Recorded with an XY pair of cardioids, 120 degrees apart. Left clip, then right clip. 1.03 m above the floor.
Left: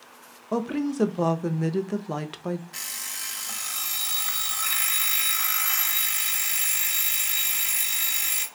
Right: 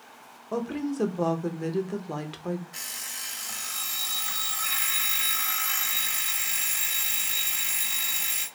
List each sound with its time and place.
0.5 s a woman speaking: 20° left, 0.5 m
2.7 s an alarm clock: 25° left, 0.9 m